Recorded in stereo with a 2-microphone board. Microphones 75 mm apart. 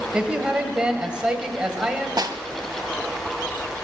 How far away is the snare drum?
About 0.8 m.